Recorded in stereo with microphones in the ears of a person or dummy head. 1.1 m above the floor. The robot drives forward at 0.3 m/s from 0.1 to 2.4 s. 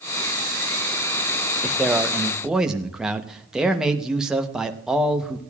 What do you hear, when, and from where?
1.6 s a man speaking: centre (ahead or behind), 0.7 m